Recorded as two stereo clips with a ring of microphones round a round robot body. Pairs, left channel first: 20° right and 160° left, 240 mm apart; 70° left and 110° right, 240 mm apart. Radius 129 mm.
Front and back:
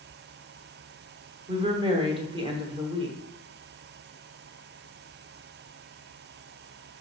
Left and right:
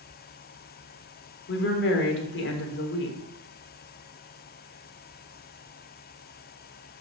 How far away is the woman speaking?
About 1.5 m.